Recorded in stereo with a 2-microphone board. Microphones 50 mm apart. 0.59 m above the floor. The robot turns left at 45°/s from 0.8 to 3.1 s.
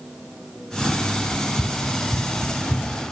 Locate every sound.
1.3 s running footsteps: 75° left (ahead or behind), 1.9 m; by 3.0 s 25° left (ahead or behind), 2.5 m